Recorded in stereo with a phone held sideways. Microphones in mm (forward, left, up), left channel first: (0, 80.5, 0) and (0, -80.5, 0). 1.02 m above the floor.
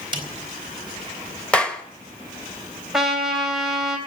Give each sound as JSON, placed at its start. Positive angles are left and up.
{"t": 0.1, "sound": "a snare drum", "side_deg": -35, "distance_m": 4.0}
{"t": 1.5, "sound": "a clap", "side_deg": 10, "distance_m": 1.2}
{"t": 2.9, "sound": "a trumpet", "side_deg": -5, "distance_m": 3.0}